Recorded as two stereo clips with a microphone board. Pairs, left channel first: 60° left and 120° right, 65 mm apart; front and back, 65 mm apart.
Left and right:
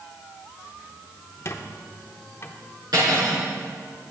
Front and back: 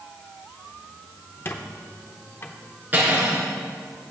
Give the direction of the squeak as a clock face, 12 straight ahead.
11 o'clock.